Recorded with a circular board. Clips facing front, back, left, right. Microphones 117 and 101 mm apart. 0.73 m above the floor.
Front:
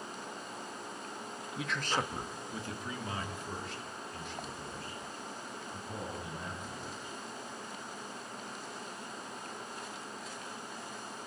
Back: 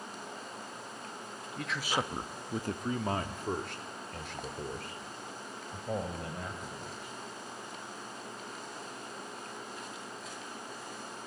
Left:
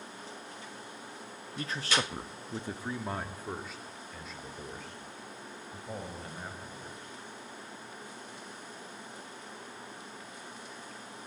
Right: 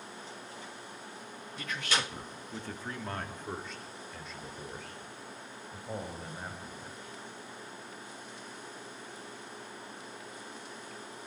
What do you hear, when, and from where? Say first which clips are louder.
1.6 s a man speaking: back 1 dB, left 2 dB; 80° left, 1.1 m; by 7.1 s 175° right, 5 m